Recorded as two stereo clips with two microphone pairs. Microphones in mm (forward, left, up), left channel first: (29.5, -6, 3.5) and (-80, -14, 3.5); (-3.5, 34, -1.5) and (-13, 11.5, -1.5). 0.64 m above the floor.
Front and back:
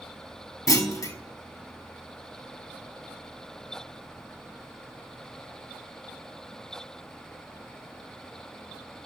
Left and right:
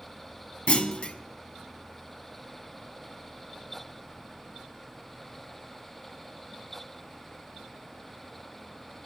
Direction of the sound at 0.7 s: 55° left.